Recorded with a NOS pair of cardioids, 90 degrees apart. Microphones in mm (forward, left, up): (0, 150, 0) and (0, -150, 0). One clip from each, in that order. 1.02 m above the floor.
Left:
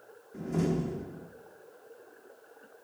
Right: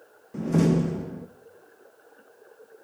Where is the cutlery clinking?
I don't hear cutlery clinking.